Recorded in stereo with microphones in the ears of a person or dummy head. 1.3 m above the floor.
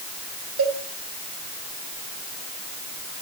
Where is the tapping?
No tapping in this recording.